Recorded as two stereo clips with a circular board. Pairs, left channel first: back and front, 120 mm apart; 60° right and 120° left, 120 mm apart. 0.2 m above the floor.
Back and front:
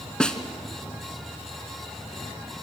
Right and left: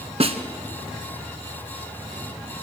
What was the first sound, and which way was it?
A snare drum, 95° left.